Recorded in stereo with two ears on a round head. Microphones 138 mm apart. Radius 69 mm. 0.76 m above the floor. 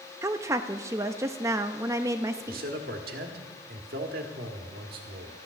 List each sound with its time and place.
0.2 s a woman speaking: 20° right (ahead or behind), 0.5 m
2.5 s a man speaking: 65° right (ahead or behind), 1.7 m